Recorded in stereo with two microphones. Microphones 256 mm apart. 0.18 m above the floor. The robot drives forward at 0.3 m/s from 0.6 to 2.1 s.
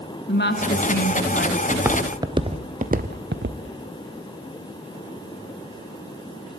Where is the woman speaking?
40° left (ahead or behind), 1.9 m.